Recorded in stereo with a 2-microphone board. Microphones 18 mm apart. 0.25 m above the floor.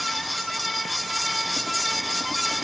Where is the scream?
No scream in this recording.